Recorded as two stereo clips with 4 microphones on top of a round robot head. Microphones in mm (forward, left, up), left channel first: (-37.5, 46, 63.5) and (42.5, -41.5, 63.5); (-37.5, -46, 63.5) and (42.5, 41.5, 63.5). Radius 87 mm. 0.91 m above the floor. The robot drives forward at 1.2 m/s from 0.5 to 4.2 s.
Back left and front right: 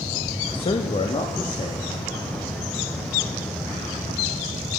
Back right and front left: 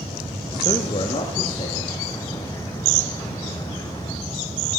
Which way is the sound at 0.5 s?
Straight behind.